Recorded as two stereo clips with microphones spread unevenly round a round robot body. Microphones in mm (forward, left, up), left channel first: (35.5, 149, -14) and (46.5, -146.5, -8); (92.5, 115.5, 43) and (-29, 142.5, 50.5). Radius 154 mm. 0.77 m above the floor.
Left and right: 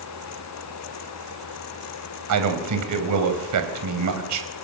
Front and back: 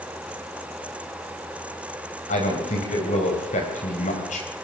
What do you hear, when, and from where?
2.3 s a man speaking: 60° right, 4 m